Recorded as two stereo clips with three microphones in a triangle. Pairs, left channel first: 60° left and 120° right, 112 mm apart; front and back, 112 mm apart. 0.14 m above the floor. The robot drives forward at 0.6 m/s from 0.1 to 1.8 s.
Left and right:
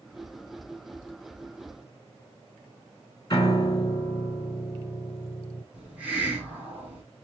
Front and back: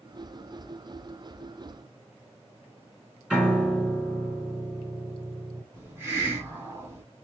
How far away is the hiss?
About 1.1 m.